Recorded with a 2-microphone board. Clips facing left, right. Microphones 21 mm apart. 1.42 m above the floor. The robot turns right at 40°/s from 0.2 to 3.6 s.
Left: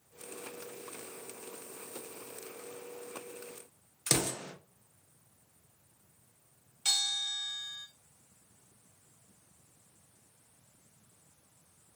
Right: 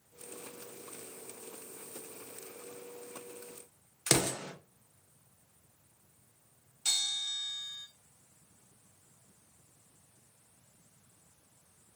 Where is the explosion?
25° right (ahead or behind), 0.6 m.